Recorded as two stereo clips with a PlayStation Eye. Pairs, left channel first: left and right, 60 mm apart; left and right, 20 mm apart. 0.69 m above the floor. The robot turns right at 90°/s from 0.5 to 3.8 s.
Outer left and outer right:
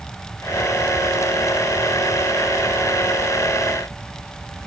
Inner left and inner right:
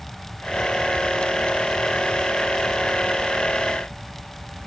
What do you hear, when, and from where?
Only background noise.